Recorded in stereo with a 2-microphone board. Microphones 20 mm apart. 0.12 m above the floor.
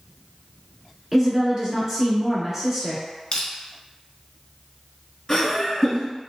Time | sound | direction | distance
1.1 | a woman speaking | 25° right (ahead or behind) | 1.4 m
3.3 | crushing | 40° left (ahead or behind) | 0.8 m
5.3 | laughter | 20° left (ahead or behind) | 1.2 m